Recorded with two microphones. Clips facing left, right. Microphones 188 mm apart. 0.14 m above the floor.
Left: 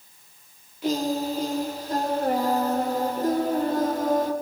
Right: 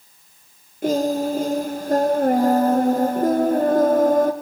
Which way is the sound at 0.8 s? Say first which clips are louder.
Right 5 dB; 50° right (ahead or behind).